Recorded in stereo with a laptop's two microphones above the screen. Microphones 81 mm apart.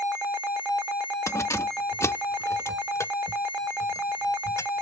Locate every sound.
1.3 s keys jangling: 40° left (ahead or behind)